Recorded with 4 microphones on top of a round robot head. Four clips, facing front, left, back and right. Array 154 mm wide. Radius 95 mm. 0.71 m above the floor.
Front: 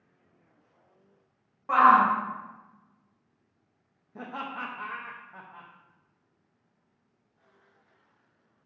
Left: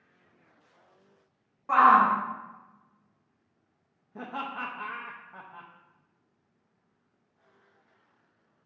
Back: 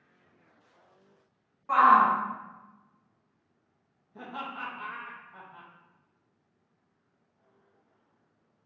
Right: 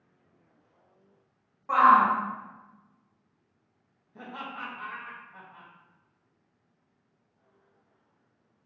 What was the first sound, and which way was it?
A shout, 35° left.